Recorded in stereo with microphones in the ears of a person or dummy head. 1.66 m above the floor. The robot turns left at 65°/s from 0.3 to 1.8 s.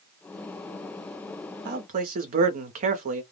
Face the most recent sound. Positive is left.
turn(degrees=-40)  # may be behind; listen again after turning